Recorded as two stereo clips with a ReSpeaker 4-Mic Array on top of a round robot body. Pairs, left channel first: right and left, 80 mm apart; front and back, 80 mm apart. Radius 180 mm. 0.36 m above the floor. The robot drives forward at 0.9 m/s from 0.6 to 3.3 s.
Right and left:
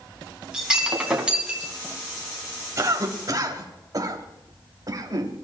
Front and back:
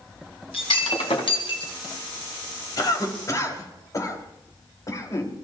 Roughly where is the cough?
Ahead left.